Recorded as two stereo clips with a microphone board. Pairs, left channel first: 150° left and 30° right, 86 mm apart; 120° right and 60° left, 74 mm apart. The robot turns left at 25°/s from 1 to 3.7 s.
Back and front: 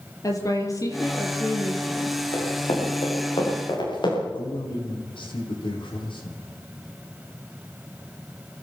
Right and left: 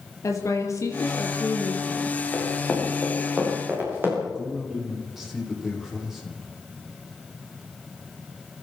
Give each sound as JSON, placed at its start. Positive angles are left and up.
{"t": 0.2, "sound": "a woman speaking", "azimuth_deg": -165, "distance_m": 4.5}
{"t": 2.3, "sound": "running footsteps", "azimuth_deg": 155, "distance_m": 9.0}
{"t": 4.2, "sound": "a man speaking", "azimuth_deg": 150, "distance_m": 7.0}